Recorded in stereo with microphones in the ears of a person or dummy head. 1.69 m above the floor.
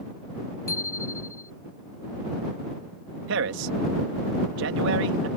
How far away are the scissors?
No scissors in this recording.